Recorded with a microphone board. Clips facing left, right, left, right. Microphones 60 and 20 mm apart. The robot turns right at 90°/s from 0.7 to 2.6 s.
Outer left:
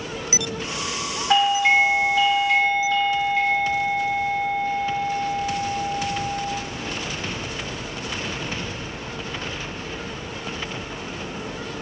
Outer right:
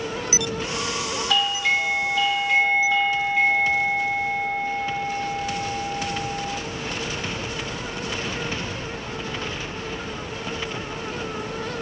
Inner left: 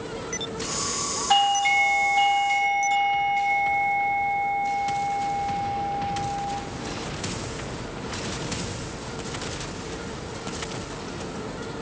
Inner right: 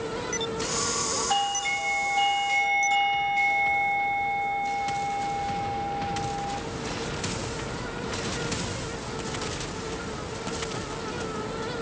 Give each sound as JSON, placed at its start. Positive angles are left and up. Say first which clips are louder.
{"t": 1.3, "sound": "a doorbell", "louder": "outer left 6 dB, inner left 9 dB", "azimuth_deg": 75, "distance_m": 1.5}